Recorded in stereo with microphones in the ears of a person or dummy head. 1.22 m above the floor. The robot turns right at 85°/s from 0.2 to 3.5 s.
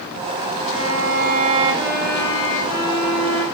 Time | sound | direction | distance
0.7 | a violin | 110° right | 4 m